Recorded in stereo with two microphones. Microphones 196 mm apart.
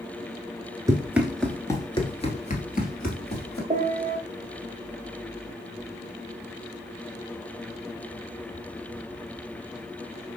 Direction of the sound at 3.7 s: 35° right (ahead or behind).